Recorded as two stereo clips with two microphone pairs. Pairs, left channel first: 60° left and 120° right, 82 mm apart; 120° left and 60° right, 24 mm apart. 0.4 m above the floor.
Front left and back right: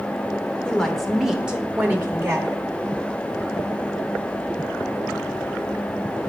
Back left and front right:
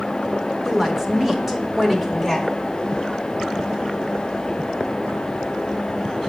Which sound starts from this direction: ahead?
A woman speaking, at 0.7 s.